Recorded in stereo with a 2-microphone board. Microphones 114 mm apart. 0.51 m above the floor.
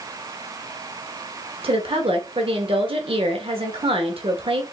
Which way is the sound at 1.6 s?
55° right (ahead or behind).